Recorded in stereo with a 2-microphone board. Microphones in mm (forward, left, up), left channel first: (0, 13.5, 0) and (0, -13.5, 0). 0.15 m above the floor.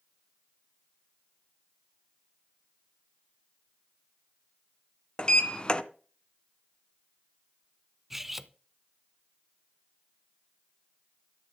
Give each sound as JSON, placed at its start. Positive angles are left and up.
{"t": 5.2, "sound": "a sliding door", "side_deg": 35, "distance_m": 0.9}
{"t": 8.1, "sound": "cutlery clinking", "side_deg": -10, "distance_m": 0.7}